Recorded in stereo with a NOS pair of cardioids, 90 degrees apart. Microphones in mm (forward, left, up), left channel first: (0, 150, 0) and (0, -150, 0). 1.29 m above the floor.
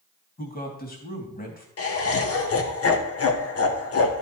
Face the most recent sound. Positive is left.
turn(degrees=50)